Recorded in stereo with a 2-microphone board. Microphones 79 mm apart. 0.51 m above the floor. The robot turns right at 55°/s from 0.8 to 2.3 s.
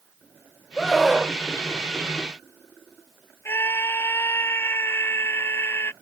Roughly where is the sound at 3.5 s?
Left.